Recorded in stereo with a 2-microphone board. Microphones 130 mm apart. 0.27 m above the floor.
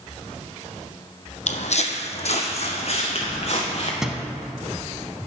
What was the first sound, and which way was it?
Footsteps, 65° left (ahead or behind).